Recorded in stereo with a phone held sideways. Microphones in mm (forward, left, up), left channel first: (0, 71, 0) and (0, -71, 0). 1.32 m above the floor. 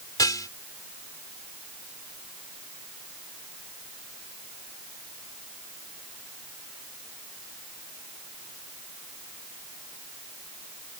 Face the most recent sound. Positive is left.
turn(degrees=25)  # may be behind; listen again after turning